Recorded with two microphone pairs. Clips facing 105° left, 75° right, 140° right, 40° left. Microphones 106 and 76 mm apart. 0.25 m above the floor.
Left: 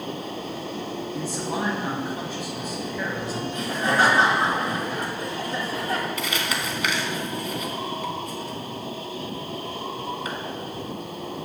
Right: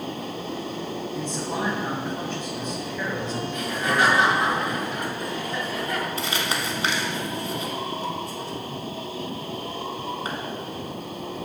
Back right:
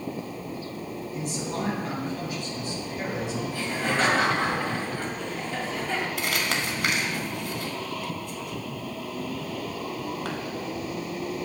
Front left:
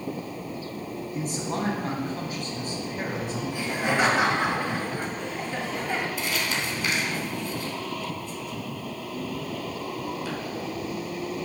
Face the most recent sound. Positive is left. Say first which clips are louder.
# right 1 dB, back right 1 dB
turn(degrees=-130)